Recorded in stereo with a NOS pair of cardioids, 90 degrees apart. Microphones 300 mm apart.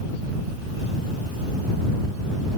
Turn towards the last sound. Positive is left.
No sound to turn to.